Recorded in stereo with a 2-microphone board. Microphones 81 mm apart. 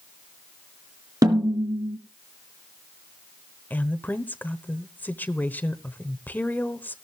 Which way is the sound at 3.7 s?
25° left (ahead or behind).